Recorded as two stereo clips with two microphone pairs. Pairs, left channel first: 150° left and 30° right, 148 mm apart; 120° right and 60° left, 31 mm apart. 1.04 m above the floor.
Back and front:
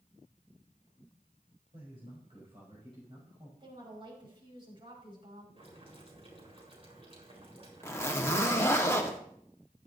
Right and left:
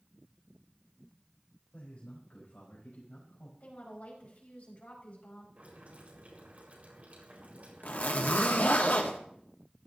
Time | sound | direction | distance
1.7 | a man speaking | 80° right | 4 m
3.6 | a woman speaking | 85° right | 5.5 m
5.6 | boiling | 15° left | 5 m
7.8 | a zipper | 140° right | 1.5 m